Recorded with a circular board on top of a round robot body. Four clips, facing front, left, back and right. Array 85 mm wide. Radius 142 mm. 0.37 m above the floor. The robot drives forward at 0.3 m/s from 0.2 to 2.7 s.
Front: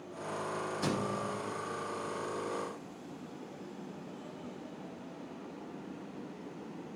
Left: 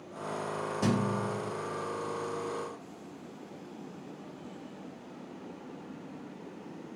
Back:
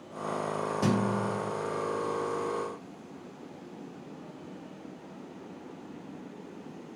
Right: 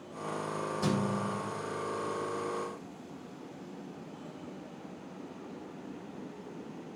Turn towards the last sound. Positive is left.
turn(degrees=150)